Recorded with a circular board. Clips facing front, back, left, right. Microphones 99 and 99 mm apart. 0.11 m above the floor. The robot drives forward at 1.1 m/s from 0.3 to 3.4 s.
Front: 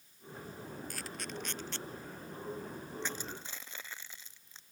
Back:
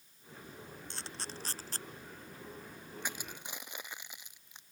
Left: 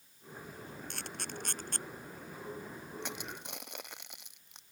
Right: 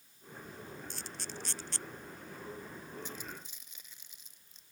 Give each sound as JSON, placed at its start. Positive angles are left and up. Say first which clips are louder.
{"t": 0.9, "sound": "a camera shutter", "louder": "front 3 dB, left 2 dB", "azimuth_deg": 115}
{"t": 3.0, "sound": "crushing", "louder": "even, left 3 dB", "azimuth_deg": 105}